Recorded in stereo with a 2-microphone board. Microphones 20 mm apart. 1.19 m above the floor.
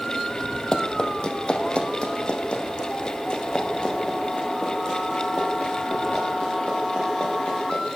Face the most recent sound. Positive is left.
turn(degrees=55)  # may be behind; listen again after turning